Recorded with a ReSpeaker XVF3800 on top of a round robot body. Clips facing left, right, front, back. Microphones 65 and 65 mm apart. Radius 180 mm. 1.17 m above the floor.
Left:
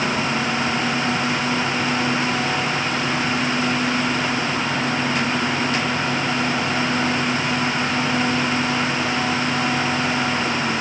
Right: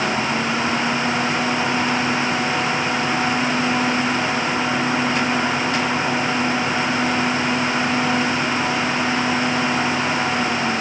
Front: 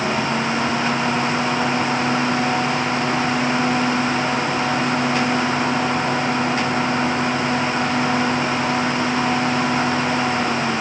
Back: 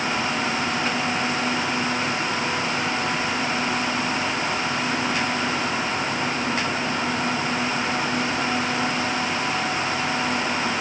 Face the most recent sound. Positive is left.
No sound to turn to.